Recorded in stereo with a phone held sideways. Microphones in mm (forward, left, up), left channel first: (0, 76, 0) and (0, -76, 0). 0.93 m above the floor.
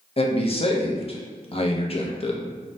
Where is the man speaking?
40° left (ahead or behind), 0.5 m.